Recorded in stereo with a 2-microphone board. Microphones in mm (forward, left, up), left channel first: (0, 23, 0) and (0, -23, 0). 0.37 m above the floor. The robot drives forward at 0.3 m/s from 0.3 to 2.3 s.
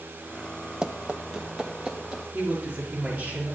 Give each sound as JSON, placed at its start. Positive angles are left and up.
{"t": 0.8, "sound": "running footsteps", "side_deg": -15, "distance_m": 0.9}
{"t": 2.3, "sound": "a woman speaking", "side_deg": -25, "distance_m": 6.0}